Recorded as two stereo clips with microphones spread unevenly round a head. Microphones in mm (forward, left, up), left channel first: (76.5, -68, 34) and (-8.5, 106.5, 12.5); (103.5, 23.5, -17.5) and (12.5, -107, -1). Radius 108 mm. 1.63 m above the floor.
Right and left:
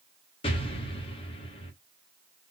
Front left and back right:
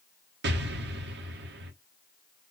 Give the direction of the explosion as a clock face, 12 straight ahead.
4 o'clock.